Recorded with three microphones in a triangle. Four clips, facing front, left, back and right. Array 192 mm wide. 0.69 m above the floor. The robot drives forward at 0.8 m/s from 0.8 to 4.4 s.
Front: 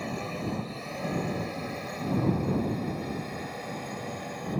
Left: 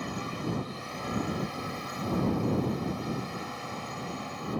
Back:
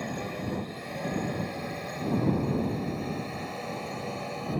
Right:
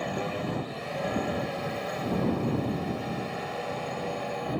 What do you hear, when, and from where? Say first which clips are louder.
0.0 s a drone: right 4 dB, even; 85° right; by 4.6 s 95° right